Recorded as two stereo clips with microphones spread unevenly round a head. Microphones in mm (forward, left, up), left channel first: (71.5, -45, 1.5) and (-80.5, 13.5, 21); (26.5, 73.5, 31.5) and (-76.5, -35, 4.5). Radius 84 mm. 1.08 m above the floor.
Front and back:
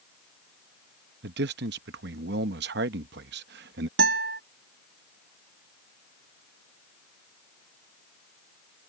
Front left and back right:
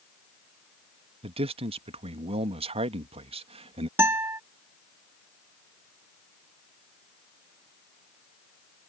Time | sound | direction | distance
1.2 | a man speaking | 175° left | ?
4.0 | a guitar | 155° left | ?